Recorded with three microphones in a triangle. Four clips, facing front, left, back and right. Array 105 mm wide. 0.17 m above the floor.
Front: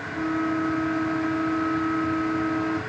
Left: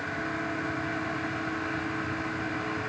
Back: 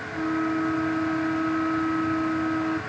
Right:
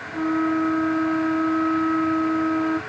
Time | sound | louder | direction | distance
0.1 | a flute | right 14 dB, even | 90° right | ?